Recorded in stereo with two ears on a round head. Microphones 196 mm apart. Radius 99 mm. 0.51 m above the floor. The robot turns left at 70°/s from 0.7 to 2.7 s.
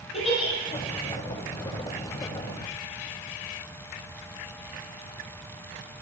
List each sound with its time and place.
0.1 s a giggle: 25° left (ahead or behind), 8 m